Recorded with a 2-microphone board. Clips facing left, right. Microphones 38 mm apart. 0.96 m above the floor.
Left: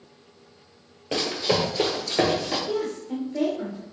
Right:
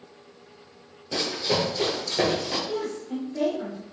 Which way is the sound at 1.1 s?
50° left (ahead or behind).